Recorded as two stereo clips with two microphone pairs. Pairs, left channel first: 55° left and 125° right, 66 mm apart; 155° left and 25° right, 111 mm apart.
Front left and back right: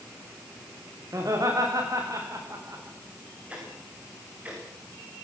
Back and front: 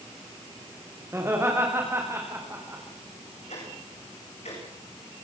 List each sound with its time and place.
1.1 s laughter: 95° right, 9 m
3.5 s ticking: 165° left, 9 m